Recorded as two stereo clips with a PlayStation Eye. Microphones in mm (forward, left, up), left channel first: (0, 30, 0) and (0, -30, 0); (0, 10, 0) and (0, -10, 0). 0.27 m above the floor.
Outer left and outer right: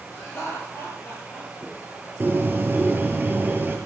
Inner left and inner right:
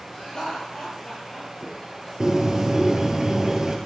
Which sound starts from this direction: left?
Laughter, at 0.1 s.